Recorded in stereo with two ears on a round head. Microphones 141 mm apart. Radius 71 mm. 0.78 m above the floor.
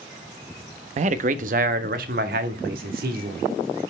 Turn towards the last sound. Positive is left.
turn(degrees=-65)  # may be behind; listen again after turning